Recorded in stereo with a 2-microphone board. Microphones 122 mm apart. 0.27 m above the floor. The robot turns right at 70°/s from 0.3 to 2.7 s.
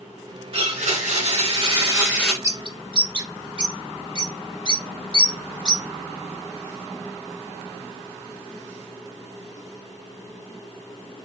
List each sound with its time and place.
0.5 s a blender: 125° right, 2.0 m; by 2.3 s straight ahead, 2.0 m
2.4 s a bird: 25° right (ahead or behind), 0.5 m; by 5.8 s 40° right (ahead or behind), 0.5 m